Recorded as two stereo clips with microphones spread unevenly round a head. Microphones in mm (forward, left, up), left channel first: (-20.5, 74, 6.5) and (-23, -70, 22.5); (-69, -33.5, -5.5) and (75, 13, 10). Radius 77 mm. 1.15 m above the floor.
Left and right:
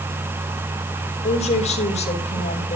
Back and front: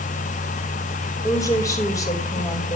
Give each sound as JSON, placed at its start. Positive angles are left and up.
{"t": 1.2, "sound": "a woman speaking", "azimuth_deg": 130, "distance_m": 3.5}